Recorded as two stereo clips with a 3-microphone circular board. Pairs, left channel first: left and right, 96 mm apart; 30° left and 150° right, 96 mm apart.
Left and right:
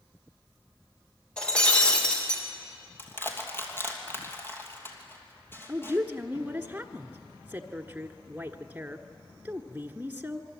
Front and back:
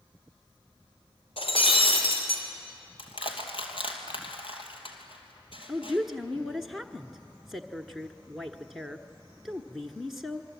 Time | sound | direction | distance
1.4 | breaking glass | 10° left | 4.5 m
3.0 | crushing | 25° left | 2.5 m
5.7 | a woman speaking | 65° right | 1.1 m